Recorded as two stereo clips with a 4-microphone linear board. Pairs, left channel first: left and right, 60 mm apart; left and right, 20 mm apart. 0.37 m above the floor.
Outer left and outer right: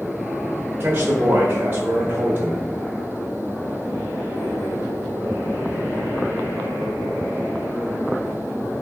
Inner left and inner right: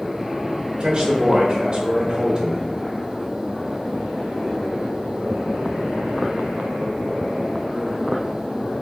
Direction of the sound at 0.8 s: 35° right (ahead or behind).